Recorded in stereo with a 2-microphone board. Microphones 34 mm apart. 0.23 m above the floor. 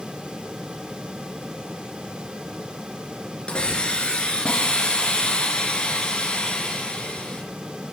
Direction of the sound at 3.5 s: 30° left (ahead or behind).